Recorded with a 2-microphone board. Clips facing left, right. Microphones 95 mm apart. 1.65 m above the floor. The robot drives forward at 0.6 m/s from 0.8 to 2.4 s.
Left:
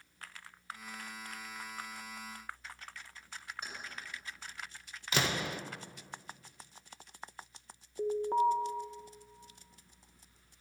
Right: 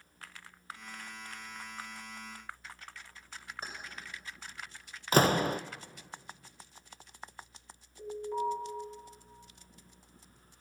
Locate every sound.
3.6 s keys jangling: 40° right (ahead or behind), 5 m
5.1 s a door slam: 40° right (ahead or behind), 0.5 m
8.0 s an alarm: 50° left (ahead or behind), 2.5 m